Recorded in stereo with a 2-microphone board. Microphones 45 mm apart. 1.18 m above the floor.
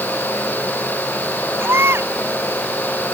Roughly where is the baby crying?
Right.